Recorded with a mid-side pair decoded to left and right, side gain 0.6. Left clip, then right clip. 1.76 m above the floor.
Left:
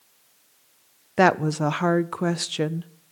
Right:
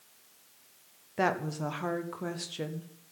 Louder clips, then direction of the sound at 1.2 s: Left 10 dB; 55° left.